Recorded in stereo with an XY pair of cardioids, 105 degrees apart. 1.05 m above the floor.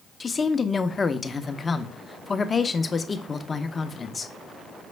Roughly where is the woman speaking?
Ahead left.